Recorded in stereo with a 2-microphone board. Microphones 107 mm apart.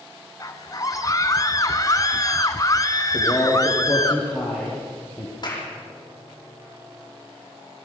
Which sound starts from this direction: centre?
A man speaking, at 3.1 s.